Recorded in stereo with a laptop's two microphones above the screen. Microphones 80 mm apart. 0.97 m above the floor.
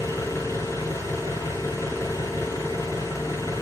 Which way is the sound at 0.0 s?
35° left (ahead or behind).